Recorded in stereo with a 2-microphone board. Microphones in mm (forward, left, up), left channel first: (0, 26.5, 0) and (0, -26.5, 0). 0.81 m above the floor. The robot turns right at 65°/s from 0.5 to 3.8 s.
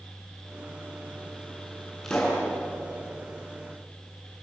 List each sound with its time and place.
2.0 s a pop: 5° left (ahead or behind), 9 m; by 2.5 s 35° left (ahead or behind), 9 m